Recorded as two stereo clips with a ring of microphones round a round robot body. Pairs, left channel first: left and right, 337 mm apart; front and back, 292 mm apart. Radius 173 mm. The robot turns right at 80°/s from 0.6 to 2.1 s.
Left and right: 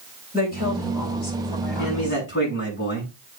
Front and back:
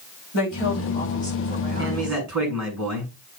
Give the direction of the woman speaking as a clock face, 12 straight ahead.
11 o'clock.